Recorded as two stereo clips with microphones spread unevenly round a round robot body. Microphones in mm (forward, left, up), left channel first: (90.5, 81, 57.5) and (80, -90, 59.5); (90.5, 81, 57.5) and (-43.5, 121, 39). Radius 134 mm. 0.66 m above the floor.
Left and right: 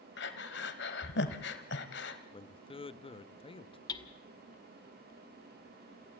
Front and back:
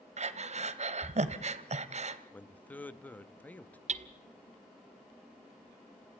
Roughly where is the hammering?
Behind left.